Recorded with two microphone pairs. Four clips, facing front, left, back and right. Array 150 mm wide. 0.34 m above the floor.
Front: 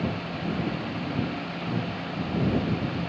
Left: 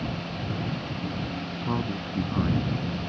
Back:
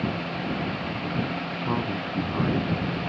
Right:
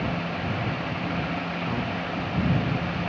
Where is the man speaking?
155° left.